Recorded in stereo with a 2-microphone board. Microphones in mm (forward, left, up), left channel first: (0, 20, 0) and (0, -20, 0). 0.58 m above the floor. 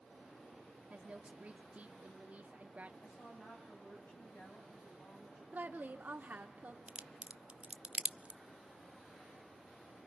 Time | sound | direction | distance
0.9 | a woman speaking | 40° right (ahead or behind) | 0.9 m
3.0 | a woman speaking | 70° left (ahead or behind) | 5 m
5.5 | a woman speaking | 50° right (ahead or behind) | 1.3 m
6.9 | a crack | 30° right (ahead or behind) | 0.6 m